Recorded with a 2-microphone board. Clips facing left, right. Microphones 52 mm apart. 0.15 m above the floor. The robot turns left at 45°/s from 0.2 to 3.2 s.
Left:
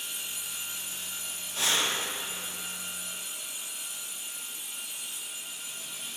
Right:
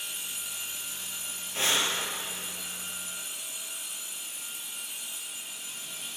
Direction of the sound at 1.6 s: 40° right (ahead or behind).